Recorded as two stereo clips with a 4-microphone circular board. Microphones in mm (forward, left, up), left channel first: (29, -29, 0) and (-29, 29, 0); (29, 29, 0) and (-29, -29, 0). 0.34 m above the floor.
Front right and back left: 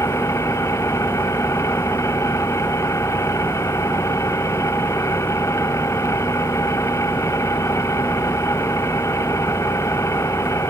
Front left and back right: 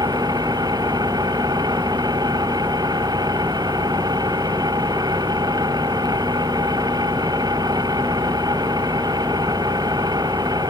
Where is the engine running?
100° right.